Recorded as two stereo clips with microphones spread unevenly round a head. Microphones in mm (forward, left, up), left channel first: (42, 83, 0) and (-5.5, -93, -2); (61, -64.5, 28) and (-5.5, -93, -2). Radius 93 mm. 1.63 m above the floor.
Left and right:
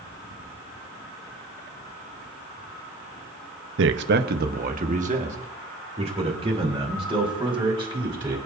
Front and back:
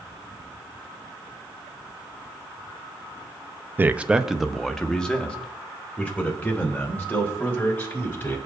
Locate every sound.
3.8 s a man speaking: 90° right, 0.9 m; by 8.4 s 40° right, 5 m